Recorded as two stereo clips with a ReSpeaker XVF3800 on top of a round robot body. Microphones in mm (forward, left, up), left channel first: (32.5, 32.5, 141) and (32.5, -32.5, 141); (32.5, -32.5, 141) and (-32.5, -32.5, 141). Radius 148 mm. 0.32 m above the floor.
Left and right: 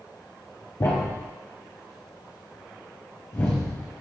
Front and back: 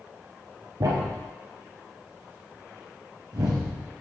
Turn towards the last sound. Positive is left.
turn(degrees=145)